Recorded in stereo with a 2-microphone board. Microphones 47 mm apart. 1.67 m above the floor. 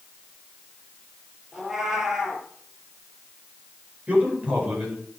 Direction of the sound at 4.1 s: 30° right (ahead or behind).